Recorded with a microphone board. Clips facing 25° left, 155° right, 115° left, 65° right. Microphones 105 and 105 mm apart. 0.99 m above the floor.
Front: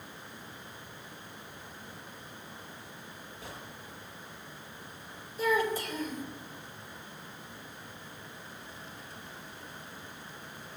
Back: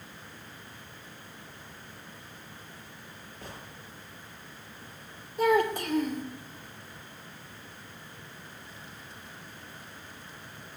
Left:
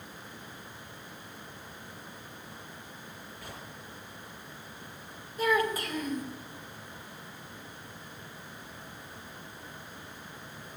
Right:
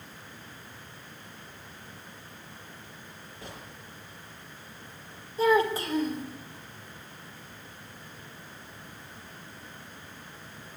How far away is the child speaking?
About 2.5 m.